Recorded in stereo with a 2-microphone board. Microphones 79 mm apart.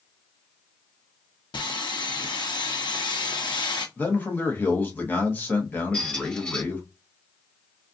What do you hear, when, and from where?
1.5 s sawing: 80° left, 0.8 m
4.0 s a man speaking: 25° left (ahead or behind), 1.2 m
5.9 s a squeak: 15° left (ahead or behind), 2.5 m